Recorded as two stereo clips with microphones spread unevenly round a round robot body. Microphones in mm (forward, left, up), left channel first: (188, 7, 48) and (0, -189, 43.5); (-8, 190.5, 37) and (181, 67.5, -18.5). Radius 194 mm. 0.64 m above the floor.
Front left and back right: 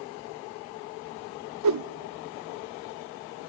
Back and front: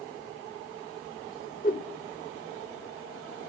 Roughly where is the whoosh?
Behind right.